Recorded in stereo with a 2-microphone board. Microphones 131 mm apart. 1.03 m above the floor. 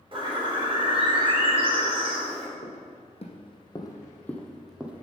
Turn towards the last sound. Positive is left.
turn(degrees=-10)  # may be behind; listen again after turning